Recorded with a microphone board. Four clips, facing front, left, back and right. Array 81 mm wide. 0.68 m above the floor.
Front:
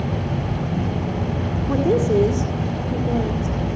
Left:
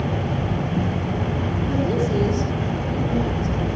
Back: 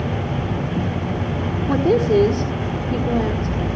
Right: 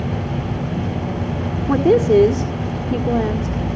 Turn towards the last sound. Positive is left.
turn(degrees=-110)